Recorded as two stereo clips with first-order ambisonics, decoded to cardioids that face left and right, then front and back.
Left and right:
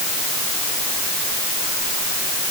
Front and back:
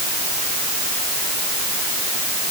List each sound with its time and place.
Only background noise.